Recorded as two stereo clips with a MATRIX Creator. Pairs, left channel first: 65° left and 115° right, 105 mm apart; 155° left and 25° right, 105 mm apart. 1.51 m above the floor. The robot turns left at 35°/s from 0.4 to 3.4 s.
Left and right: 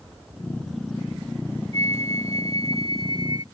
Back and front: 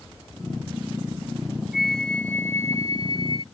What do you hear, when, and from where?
1.7 s a flute: 110° right; by 3.4 s 165° right